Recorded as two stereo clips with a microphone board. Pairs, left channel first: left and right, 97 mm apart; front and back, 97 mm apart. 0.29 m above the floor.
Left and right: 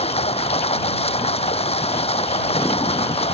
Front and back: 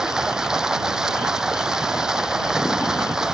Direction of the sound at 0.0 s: 95° left.